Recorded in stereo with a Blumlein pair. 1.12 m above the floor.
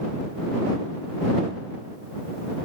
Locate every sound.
Only background noise.